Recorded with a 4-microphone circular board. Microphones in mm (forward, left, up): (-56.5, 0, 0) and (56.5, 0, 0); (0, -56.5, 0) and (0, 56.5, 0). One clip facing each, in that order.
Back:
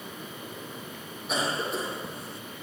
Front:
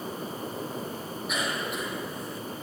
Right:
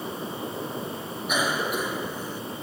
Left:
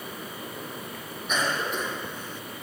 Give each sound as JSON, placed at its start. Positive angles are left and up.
{"t": 1.3, "sound": "a cough", "azimuth_deg": -160, "distance_m": 1.2}